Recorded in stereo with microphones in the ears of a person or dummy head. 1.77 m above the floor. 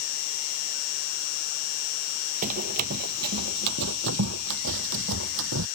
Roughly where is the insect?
Left.